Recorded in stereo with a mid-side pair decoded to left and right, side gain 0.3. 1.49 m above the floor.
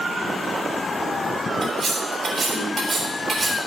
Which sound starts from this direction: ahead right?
Cutlery clinking, at 1.6 s.